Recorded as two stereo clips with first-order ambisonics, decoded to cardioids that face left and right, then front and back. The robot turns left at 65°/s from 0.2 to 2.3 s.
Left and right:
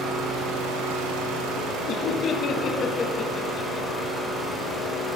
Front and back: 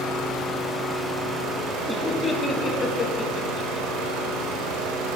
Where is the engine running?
40° right, 1.8 m; by 5.2 s 175° right, 1.8 m.